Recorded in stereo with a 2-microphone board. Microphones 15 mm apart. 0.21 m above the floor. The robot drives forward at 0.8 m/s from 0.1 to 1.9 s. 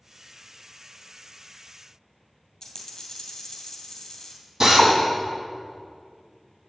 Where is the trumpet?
No trumpet in this recording.